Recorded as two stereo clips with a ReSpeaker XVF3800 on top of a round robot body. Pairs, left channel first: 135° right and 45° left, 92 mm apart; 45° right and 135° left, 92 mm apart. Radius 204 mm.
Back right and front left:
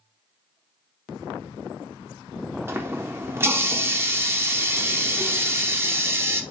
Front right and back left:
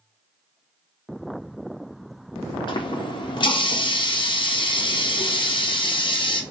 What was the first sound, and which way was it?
A running tap, 20° right.